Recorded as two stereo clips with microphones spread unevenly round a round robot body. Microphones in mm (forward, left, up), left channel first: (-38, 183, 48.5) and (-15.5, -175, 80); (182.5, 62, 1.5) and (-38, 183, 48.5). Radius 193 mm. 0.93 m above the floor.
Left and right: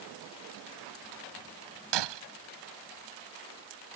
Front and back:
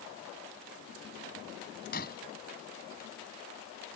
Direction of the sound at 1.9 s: 100° right.